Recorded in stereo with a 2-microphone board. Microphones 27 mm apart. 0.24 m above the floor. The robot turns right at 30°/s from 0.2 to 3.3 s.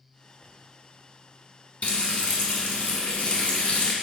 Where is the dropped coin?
I don't hear a dropped coin.